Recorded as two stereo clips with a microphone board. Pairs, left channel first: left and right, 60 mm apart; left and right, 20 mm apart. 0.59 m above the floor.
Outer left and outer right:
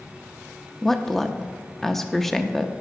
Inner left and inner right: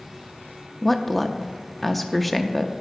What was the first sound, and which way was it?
A woman speaking, 5° left (ahead or behind).